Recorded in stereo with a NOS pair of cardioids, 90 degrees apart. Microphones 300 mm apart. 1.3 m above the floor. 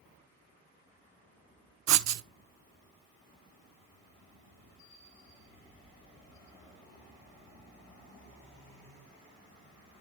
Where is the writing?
65° right, 0.5 m.